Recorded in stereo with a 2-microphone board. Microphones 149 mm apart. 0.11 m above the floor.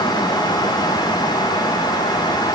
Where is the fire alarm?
I don't hear a fire alarm.